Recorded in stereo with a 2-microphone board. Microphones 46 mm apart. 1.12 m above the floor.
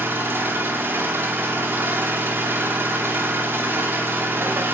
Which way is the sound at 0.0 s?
50° right (ahead or behind).